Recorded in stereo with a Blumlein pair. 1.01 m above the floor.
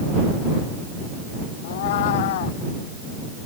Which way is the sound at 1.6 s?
55° left.